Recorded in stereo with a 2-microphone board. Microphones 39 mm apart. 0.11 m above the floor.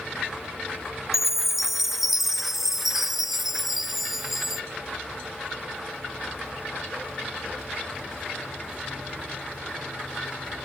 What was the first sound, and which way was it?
A chime, 5° right (ahead or behind).